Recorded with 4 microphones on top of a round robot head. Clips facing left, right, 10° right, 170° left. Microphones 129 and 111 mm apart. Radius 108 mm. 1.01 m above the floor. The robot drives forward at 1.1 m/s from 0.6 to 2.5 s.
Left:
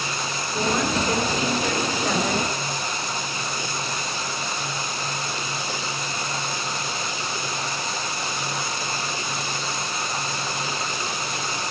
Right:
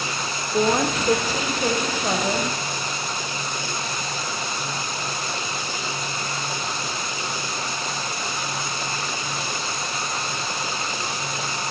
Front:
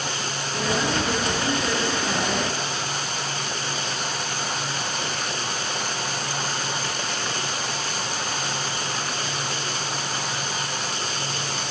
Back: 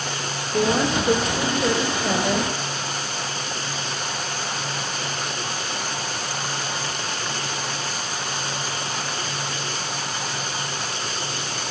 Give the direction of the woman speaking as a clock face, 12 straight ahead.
5 o'clock.